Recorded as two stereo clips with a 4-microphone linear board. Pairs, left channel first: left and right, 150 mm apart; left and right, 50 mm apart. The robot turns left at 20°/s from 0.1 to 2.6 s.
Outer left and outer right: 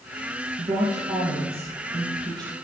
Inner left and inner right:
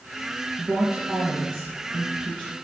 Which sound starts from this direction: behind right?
A woman speaking, at 0.6 s.